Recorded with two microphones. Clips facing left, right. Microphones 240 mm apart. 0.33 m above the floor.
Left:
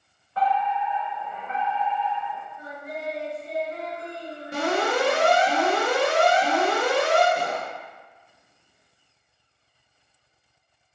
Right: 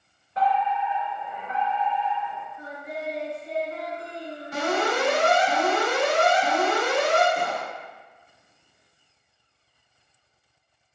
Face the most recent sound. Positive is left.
turn(degrees=45)  # may be behind; listen again after turning